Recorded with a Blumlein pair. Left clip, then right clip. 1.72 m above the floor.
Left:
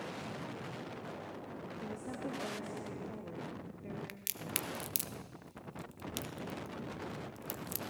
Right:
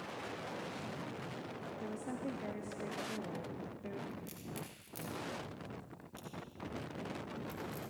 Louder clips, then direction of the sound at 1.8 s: Even; 10° right.